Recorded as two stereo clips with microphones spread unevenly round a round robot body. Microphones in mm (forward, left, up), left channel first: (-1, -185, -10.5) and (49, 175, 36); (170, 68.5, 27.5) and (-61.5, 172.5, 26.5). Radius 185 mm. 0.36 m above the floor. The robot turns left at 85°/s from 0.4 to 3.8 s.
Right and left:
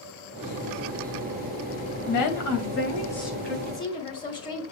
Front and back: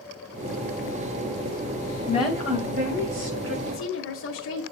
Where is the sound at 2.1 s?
85° right, 2 m; by 3.5 s 150° left, 2 m.